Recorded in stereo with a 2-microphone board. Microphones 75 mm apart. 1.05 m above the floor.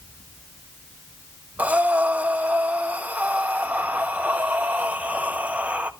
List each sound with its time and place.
1.6 s breathing: 20° right (ahead or behind), 0.6 m